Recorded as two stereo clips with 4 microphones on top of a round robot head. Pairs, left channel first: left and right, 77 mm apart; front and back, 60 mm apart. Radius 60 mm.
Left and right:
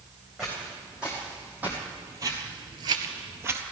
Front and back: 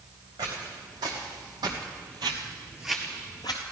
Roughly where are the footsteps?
Behind.